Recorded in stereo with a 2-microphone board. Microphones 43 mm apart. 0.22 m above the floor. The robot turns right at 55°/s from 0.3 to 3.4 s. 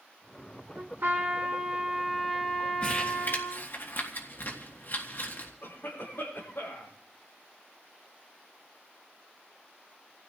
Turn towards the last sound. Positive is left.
turn(degrees=70)  # may be behind; listen again after turning